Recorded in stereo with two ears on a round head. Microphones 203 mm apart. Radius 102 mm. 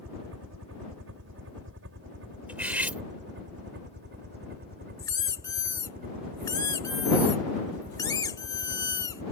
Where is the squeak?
15° left (ahead or behind).